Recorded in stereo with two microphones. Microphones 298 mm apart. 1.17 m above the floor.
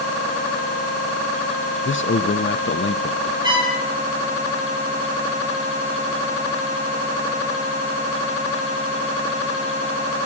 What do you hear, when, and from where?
1.9 s a man speaking: 40° left (ahead or behind), 0.6 m
3.4 s a trumpet: 15° right (ahead or behind), 8 m